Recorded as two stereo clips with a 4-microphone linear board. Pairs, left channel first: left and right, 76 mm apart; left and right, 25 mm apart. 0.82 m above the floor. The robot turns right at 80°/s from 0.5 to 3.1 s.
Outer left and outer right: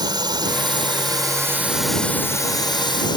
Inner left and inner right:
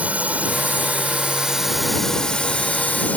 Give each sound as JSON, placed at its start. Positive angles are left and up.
{"t": 0.0, "sound": "a drone", "azimuth_deg": -110}